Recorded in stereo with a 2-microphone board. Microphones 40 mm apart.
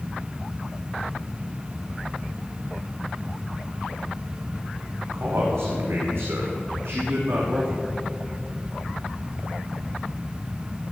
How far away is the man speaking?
About 7 m.